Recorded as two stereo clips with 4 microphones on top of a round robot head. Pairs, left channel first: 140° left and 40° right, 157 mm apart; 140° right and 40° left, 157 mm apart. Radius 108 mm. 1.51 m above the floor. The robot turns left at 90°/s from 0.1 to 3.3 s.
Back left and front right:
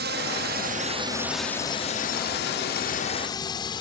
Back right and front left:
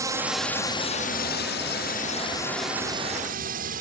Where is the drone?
30° right; by 3.8 s 75° left.